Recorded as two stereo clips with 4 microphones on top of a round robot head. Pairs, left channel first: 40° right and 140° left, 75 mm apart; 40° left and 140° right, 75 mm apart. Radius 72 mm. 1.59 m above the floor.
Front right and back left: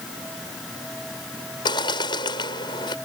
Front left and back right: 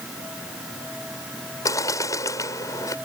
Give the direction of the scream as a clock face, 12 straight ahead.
I don't hear a scream.